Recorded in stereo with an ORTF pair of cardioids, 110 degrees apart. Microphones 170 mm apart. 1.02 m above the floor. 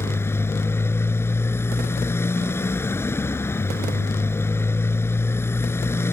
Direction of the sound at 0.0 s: 15° left.